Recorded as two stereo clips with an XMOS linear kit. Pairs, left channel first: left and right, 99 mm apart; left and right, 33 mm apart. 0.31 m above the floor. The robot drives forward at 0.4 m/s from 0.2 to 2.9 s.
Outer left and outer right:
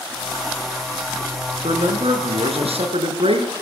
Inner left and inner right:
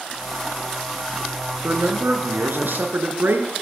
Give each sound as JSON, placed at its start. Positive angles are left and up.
{"t": 1.6, "sound": "a man speaking", "side_deg": -75, "distance_m": 4.5}